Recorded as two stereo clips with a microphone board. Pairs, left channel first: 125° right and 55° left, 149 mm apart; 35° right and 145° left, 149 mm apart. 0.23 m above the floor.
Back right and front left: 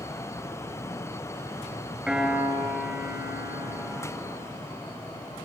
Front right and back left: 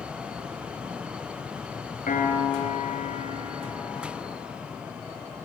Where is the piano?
25° right, 3.5 m.